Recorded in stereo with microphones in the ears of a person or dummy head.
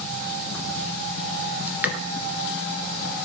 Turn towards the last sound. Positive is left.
turn(degrees=-20)  # may be behind; listen again after turning